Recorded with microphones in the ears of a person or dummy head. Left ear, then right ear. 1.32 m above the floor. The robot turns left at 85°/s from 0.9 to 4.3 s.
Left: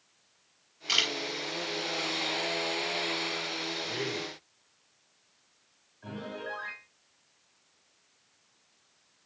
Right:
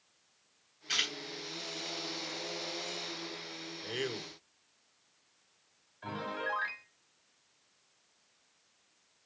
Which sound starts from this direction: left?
A camera shutter, at 0.9 s.